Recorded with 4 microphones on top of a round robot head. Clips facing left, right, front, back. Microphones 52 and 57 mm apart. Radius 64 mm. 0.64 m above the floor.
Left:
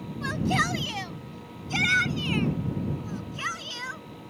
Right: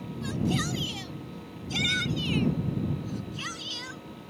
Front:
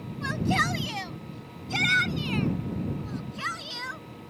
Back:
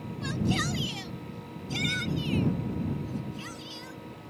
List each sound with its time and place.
0.2 s a shout: 55° left; by 4.3 s 30° left